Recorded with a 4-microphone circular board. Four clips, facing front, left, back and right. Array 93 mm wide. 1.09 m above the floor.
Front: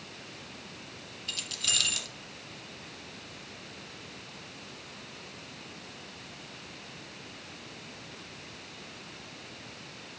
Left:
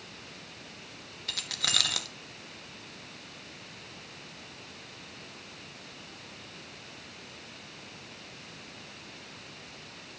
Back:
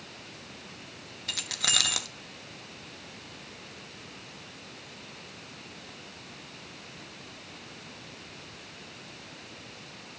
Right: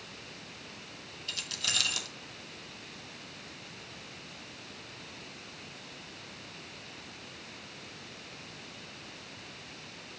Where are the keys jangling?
145° left, 1.3 m.